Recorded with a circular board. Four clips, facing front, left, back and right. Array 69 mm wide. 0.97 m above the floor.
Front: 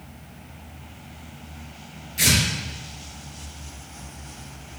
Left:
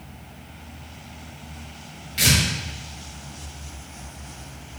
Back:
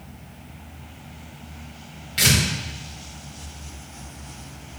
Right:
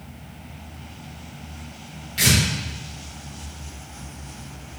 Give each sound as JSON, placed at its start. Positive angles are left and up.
{"t": 2.2, "sound": "tearing paper", "azimuth_deg": 180, "distance_m": 1.4}